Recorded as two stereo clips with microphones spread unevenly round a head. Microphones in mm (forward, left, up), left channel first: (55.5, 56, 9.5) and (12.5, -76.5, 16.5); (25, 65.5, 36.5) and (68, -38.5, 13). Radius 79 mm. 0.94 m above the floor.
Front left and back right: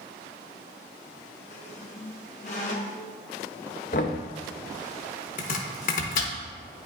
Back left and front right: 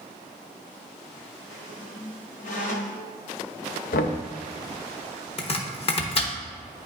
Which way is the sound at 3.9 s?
115° left.